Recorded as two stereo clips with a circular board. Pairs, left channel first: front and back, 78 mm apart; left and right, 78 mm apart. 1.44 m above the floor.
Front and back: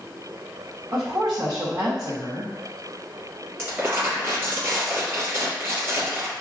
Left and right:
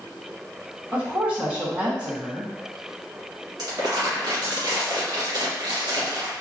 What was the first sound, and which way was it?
A woman speaking, 165° right.